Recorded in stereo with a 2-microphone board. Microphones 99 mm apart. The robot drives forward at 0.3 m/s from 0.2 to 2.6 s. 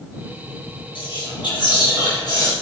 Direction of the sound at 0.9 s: 55° left (ahead or behind).